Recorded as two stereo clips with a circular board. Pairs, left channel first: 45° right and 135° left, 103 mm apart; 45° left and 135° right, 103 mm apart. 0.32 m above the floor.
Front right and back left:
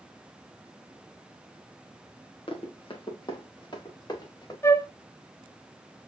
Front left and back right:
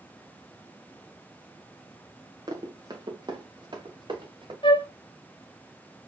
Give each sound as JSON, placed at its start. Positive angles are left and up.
{"t": 2.5, "sound": "running footsteps", "azimuth_deg": -80, "distance_m": 3.0}
{"t": 4.6, "sound": "a flute", "azimuth_deg": 15, "distance_m": 0.9}